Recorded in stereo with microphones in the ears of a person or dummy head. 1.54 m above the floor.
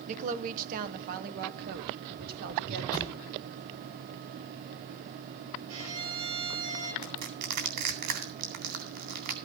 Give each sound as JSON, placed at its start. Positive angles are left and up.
{"t": 0.1, "sound": "a woman speaking", "side_deg": -40, "distance_m": 1.1}
{"t": 2.9, "sound": "a thud", "side_deg": 20, "distance_m": 3.0}
{"t": 5.7, "sound": "a violin", "side_deg": -80, "distance_m": 5.0}
{"t": 7.0, "sound": "crushing", "side_deg": -60, "distance_m": 3.5}